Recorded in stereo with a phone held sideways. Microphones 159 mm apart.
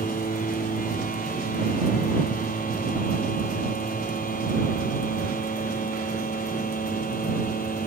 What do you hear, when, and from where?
0.0 s a machine running: 60° left (ahead or behind)